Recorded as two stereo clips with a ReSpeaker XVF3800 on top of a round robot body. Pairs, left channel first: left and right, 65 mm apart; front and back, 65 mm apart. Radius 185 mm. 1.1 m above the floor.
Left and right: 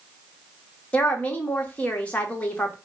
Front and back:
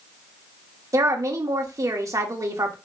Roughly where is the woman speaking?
Behind left.